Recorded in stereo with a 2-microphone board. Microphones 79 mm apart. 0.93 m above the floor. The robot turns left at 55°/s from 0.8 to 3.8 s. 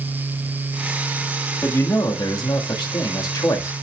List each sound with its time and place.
1.6 s a man speaking: 150° left, 1.8 m; by 3.7 s 35° left, 1.8 m